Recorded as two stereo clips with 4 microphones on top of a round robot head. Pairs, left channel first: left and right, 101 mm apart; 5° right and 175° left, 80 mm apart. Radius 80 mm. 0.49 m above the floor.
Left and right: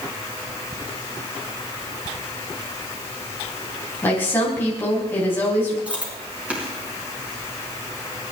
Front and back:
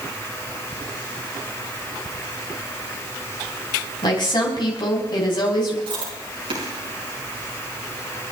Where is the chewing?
170° right, 5 m.